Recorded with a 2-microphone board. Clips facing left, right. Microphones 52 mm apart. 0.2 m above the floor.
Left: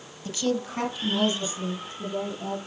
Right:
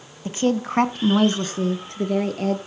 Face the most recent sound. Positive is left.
turn(degrees=-70)  # may be behind; listen again after turning